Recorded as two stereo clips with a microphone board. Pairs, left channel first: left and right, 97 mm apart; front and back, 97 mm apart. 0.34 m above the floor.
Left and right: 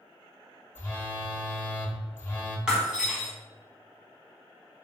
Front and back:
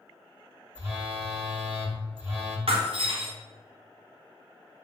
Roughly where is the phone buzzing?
Behind left.